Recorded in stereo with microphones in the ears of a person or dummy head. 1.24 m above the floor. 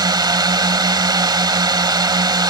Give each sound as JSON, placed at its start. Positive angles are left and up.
{"t": 0.0, "sound": "a drone", "side_deg": -20}